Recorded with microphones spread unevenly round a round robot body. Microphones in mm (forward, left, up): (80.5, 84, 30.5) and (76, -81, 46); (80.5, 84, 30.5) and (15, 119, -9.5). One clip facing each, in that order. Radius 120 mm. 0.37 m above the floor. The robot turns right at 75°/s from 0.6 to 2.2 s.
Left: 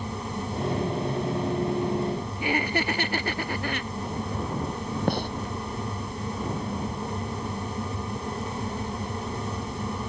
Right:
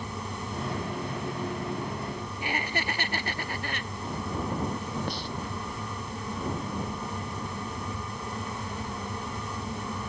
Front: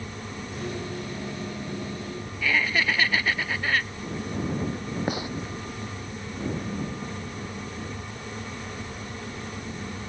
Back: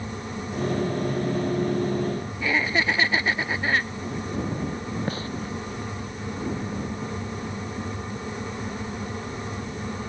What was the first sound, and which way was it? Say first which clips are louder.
Laughter: left 6 dB, back 1 dB; 85° left.